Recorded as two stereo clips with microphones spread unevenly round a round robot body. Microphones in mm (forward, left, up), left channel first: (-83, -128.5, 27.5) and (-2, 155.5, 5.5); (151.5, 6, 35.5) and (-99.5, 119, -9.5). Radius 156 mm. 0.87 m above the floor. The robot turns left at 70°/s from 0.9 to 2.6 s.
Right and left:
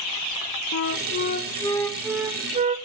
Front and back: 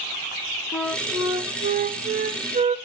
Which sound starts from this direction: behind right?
A flute, at 0.7 s.